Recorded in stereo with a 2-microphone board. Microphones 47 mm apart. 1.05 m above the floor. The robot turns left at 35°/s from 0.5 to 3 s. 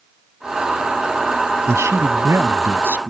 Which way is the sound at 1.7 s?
90° right.